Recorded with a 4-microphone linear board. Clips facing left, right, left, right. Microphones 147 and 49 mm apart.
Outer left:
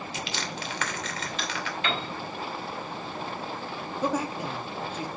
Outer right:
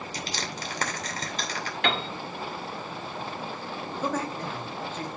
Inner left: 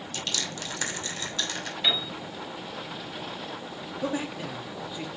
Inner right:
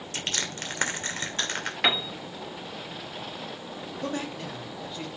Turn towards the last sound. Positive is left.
turn(degrees=10)  # may be behind; listen again after turning